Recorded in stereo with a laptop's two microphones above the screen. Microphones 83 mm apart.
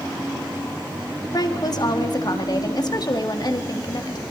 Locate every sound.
1.3 s a woman speaking: 55° left (ahead or behind), 2.0 m